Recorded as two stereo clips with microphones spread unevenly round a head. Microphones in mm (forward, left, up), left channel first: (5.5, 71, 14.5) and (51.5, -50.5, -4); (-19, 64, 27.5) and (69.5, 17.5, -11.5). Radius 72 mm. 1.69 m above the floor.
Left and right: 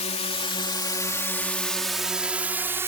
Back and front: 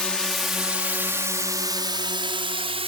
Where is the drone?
70° left; by 2.9 s 5° left.